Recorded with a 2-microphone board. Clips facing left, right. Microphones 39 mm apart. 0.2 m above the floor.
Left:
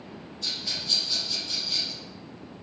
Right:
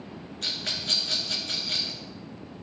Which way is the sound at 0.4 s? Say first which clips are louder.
Right 1 dB; 65° right (ahead or behind).